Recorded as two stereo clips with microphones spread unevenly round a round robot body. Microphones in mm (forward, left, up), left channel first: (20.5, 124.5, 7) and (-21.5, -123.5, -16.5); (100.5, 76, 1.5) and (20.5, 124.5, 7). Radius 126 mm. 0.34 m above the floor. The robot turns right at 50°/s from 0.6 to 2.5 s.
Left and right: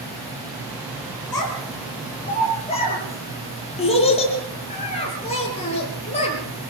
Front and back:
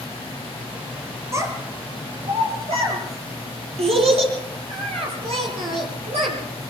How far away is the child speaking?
About 8 m.